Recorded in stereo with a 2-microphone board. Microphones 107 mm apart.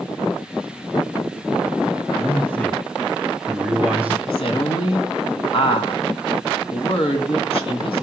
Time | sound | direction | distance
2.2 | a man speaking | 15° left (ahead or behind) | 3 m
4.3 | a woman speaking | 60° left (ahead or behind) | 4 m